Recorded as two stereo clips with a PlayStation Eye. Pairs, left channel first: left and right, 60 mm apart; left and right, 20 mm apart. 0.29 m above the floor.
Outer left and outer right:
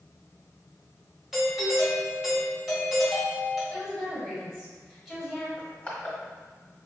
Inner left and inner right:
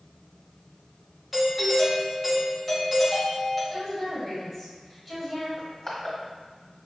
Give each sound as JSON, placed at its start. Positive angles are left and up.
{"t": 1.3, "sound": "a doorbell", "side_deg": -10, "distance_m": 1.6}
{"t": 3.7, "sound": "a woman speaking", "side_deg": 0, "distance_m": 1.8}
{"t": 5.6, "sound": "crushing", "side_deg": 20, "distance_m": 1.5}